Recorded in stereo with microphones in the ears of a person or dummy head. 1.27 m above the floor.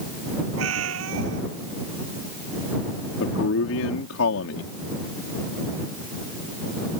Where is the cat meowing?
85° right.